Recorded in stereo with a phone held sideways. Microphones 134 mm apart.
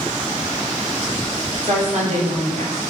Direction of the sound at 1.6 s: 50° right (ahead or behind).